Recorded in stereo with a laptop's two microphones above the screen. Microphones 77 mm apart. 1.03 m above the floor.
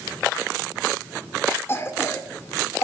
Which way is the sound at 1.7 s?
30° left (ahead or behind).